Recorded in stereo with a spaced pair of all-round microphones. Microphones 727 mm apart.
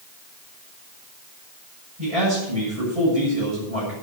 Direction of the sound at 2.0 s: 45° right (ahead or behind).